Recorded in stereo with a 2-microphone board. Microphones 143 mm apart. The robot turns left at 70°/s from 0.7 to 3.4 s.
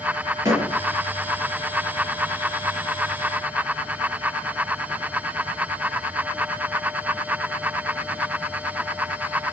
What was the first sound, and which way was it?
A door slam, 25° right (ahead or behind).